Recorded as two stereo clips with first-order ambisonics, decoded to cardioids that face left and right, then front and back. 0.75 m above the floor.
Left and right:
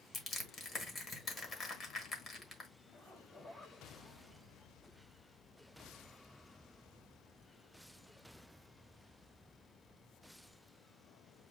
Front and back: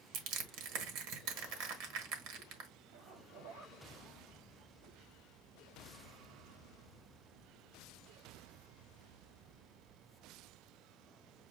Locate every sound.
0.1 s crushing: 155° left, 1.4 m
2.9 s a zipper: 155° left, 2.5 m